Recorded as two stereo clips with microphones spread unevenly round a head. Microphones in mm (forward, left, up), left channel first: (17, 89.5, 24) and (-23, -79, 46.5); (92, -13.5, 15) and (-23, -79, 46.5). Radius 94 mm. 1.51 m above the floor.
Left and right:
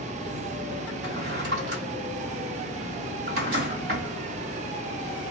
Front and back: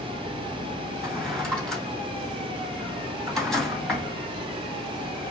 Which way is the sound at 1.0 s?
65° right.